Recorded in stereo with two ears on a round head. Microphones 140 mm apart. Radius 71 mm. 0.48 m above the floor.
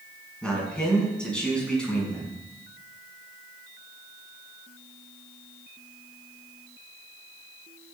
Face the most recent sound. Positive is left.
turn(degrees=5)  # may be behind; listen again after turning